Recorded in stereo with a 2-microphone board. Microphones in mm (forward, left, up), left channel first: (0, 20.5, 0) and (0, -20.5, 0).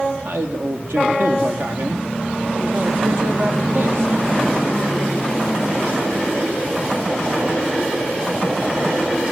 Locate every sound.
0.2 s a man speaking: 65° right (ahead or behind), 3 m